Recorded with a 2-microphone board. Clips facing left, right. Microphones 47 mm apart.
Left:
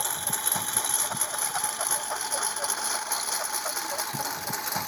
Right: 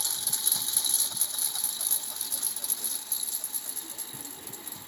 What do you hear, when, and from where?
0.0 s a lawn mower: 40° left (ahead or behind); by 4.9 s 75° left (ahead or behind)